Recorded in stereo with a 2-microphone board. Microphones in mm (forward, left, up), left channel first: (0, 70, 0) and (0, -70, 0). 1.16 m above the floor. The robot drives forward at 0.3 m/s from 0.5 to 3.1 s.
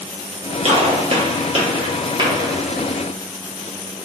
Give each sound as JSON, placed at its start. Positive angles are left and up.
{"t": 0.7, "sound": "a gunshot", "side_deg": -50, "distance_m": 0.7}